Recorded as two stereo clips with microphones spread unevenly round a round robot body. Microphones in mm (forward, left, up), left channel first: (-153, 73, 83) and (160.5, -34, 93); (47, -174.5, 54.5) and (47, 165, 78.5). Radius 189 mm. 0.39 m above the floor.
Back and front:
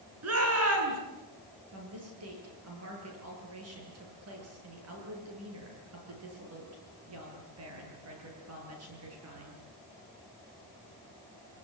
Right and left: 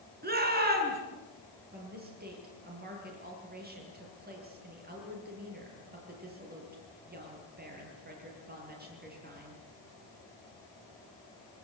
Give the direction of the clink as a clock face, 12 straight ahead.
No clink in this recording.